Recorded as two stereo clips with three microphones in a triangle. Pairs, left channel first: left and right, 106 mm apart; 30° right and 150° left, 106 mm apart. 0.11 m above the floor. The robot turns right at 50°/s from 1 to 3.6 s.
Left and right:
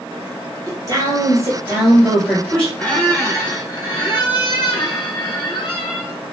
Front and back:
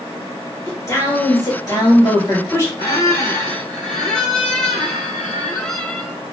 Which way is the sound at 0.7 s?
65° right.